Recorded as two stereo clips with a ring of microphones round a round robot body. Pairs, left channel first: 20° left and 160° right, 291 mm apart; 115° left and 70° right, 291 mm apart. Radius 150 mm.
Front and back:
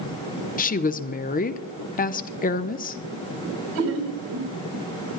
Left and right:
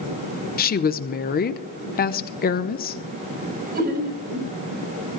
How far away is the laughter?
About 3.5 m.